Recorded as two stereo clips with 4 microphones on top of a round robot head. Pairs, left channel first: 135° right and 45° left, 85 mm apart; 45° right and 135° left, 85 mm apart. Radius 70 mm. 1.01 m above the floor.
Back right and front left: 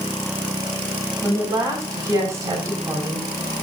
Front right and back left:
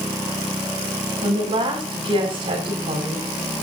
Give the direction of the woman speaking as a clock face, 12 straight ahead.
9 o'clock.